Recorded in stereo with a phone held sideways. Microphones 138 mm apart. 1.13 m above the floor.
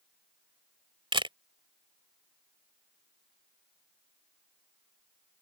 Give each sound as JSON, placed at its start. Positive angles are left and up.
{"t": 1.1, "sound": "a camera shutter", "side_deg": -40}